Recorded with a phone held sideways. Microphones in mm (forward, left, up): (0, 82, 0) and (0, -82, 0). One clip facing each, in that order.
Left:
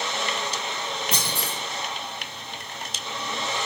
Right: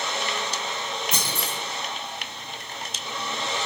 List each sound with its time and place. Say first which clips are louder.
1.1 s a clunk: even; 35° left (ahead or behind), 1.3 m